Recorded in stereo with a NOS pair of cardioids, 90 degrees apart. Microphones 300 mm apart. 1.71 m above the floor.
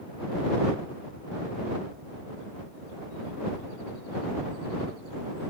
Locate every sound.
Only background noise.